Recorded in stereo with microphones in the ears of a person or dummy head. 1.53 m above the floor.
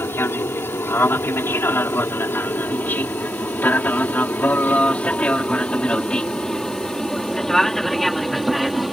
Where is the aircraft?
10° left (ahead or behind); by 8.9 s centre (ahead or behind).